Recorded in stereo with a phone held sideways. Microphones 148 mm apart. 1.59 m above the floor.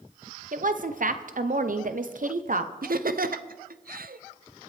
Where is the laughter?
75° right (ahead or behind), 0.6 m.